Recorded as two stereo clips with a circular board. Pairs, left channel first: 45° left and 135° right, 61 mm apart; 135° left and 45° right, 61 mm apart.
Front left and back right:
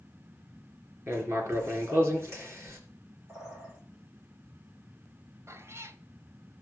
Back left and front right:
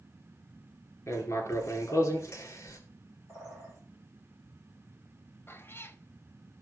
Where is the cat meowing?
175° right, 1.2 m.